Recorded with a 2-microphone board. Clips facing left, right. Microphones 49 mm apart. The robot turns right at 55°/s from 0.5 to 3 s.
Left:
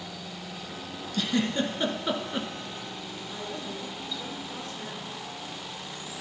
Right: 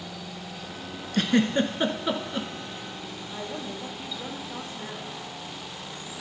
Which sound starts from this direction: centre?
A woman speaking, at 3.3 s.